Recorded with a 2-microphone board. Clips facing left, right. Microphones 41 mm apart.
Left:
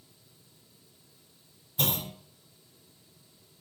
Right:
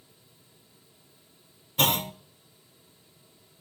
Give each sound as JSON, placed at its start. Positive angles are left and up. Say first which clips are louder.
{"t": 1.8, "sound": "a clunk", "louder": "right 7 dB", "side_deg": -65, "distance_m": 0.6}